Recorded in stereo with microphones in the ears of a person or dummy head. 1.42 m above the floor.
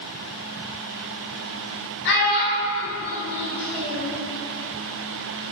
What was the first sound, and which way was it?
A child speaking, 60° left (ahead or behind).